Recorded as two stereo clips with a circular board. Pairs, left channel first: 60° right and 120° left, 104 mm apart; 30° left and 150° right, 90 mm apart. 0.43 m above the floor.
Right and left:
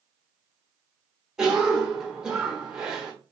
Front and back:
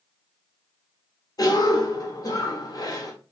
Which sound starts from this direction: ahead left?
A cough, at 1.4 s.